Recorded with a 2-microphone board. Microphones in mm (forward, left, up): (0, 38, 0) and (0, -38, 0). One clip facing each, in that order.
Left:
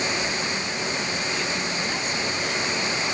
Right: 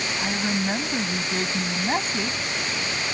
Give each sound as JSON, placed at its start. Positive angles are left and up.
{"t": 0.2, "sound": "a woman speaking", "side_deg": -55}